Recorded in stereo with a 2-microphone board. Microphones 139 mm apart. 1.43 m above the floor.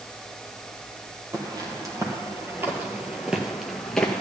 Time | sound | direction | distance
1.3 | footsteps | 30° right (ahead or behind) | 2 m